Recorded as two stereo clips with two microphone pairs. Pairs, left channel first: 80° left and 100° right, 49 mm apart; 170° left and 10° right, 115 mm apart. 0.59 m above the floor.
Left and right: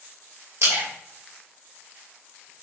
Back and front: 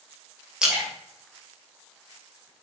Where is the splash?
95° right, 3 m.